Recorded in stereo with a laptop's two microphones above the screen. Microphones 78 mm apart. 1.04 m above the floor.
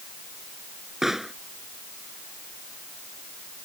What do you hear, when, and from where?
1.0 s a pop: 5° right (ahead or behind)